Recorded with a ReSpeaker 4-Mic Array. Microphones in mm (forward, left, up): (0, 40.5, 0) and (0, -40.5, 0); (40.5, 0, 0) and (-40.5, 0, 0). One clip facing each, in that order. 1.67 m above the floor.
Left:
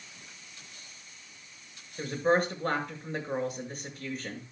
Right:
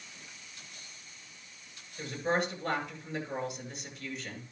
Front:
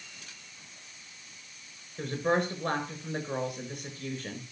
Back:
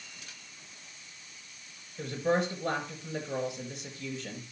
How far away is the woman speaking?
About 7.5 m.